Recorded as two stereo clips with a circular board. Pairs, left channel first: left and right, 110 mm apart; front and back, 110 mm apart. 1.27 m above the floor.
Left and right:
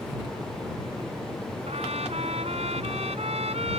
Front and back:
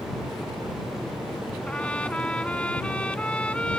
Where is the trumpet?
80° right.